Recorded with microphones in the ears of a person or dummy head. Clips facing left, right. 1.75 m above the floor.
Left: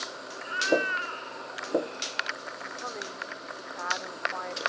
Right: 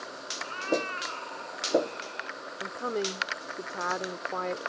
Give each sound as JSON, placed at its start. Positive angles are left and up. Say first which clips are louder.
{"t": 0.4, "sound": "a cat meowing", "louder": "left 3 dB", "side_deg": 15}
{"t": 2.6, "sound": "a woman speaking", "louder": "right 11 dB", "side_deg": -45}